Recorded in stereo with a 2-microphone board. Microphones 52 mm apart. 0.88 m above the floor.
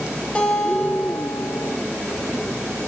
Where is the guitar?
25° left (ahead or behind), 2 m.